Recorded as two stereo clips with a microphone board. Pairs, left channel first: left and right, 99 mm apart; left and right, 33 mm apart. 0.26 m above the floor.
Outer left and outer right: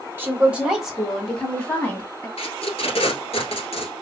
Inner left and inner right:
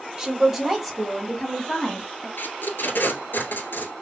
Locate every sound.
0.2 s a woman speaking: 20° right (ahead or behind), 1.1 m; by 2.3 s 20° left (ahead or behind), 1.9 m
2.4 s tape being pulled: 80° left, 1.2 m